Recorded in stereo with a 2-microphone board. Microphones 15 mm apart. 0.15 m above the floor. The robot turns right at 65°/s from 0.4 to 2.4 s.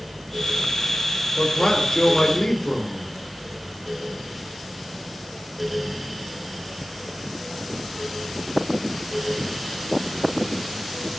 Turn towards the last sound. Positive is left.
turn(degrees=110)